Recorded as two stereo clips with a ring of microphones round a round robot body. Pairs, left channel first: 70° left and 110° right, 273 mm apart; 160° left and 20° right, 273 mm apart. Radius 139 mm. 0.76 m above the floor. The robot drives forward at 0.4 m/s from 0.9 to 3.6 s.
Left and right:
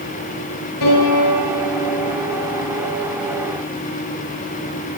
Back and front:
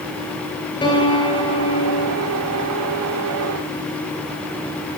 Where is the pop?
I don't hear a pop.